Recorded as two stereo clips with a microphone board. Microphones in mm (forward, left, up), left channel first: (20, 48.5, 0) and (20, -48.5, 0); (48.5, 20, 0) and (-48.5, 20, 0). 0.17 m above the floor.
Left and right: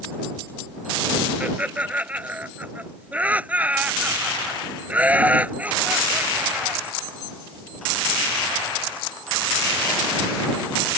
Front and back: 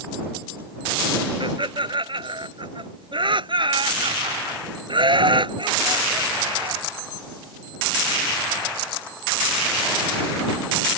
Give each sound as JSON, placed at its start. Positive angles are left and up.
{"t": 1.4, "sound": "laughter", "azimuth_deg": -165}